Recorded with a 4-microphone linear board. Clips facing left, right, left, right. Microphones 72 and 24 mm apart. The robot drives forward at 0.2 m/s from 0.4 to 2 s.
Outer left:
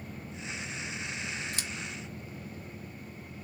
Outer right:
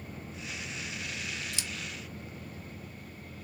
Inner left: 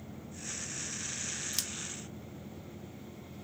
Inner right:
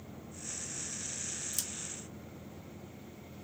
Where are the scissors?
50° left (ahead or behind), 0.8 m.